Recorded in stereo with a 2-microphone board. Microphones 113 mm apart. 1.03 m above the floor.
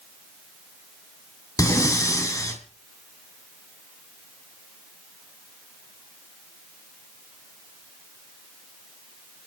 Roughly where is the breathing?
Left.